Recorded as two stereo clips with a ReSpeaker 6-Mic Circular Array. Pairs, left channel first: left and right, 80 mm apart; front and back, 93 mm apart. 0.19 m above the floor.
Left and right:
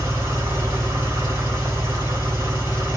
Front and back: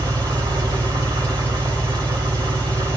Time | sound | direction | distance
0.0 | an engine running | 145° right | 2.5 m